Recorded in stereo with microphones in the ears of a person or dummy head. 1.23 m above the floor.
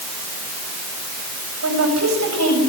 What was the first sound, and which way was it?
A woman speaking, 75° right (ahead or behind).